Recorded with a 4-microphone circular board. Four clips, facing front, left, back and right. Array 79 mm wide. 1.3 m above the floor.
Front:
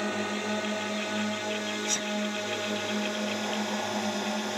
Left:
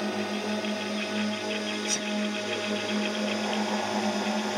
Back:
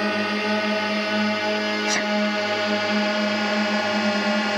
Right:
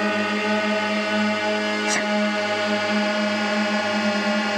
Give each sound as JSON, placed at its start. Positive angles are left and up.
{"t": 0.0, "sound": "a drone", "azimuth_deg": -115}
{"t": 1.9, "sound": "a sneeze", "azimuth_deg": -120}